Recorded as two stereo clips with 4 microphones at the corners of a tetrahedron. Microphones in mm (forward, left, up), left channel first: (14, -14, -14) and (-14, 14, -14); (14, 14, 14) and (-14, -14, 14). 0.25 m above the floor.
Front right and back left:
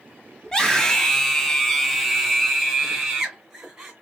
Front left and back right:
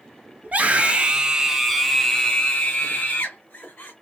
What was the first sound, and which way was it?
A scream, 115° right.